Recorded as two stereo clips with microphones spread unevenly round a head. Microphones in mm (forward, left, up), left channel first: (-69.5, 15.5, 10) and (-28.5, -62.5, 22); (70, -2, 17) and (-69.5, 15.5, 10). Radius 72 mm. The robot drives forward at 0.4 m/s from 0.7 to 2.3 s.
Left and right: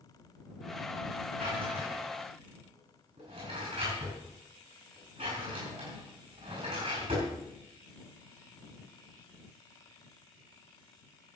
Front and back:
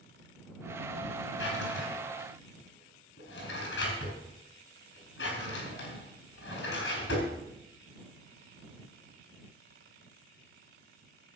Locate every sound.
1.4 s a drawer: 10° right, 6 m; by 7.3 s 15° right, 5.5 m